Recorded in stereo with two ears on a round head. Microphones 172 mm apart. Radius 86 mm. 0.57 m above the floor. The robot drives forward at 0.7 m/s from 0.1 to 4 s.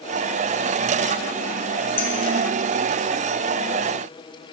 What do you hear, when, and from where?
2.0 s a clink: 30° left (ahead or behind), 3 m; by 2.1 s 25° left (ahead or behind), 3.5 m